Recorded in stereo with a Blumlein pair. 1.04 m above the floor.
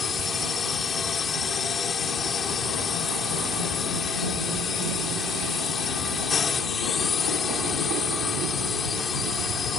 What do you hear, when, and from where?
0.0 s a drone: 20° left